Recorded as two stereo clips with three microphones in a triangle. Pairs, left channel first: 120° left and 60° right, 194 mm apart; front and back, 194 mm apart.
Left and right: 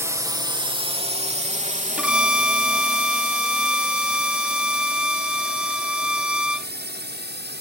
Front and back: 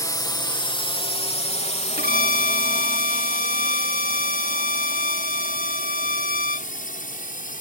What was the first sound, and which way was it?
A drone, 20° right.